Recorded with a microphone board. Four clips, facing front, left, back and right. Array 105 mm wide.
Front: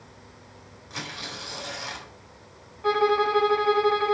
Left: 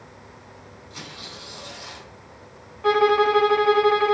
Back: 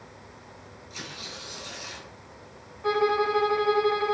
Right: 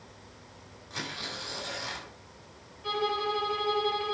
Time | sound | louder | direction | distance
0.9 | tearing paper | right 3 dB, front 5 dB | 20° right | 6 m
2.8 | a violin | left 13 dB, front 2 dB | 80° left | 1.1 m